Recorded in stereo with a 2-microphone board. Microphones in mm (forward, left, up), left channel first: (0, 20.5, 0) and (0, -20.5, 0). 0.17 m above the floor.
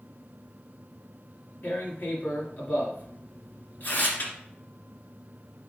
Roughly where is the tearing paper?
Left.